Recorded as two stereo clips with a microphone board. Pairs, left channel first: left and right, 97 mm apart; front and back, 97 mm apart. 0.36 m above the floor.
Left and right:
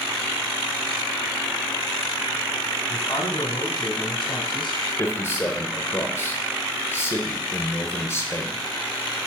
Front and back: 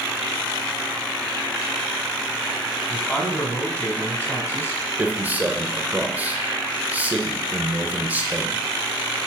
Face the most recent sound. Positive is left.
turn(degrees=125)